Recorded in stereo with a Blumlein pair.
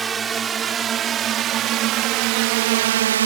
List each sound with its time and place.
0.0 s a drone: 15° right; by 3.3 s 65° right